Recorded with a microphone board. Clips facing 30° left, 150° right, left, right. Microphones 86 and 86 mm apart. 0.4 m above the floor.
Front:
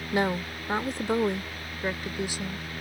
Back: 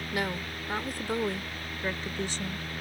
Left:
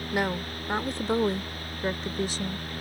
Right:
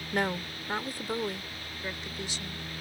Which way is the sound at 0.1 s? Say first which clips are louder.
Front 6 dB, left 2 dB; 15° left.